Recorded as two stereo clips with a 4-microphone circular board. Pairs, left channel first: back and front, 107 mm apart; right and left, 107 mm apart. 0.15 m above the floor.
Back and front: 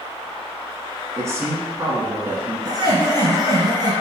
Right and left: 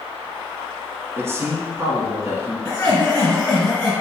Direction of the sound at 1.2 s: 45° left.